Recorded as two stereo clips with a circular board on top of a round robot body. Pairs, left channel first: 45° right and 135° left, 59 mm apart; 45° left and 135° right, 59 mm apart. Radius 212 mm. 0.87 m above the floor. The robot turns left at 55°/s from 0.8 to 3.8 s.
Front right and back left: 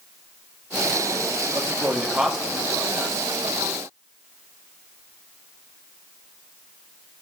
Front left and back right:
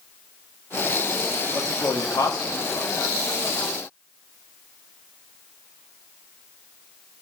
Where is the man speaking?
95° left, 2 m; by 3.2 s 5° left, 2 m.